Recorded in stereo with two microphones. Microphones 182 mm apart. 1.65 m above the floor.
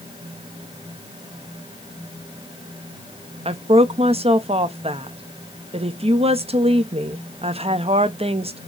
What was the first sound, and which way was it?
A woman speaking, 30° right (ahead or behind).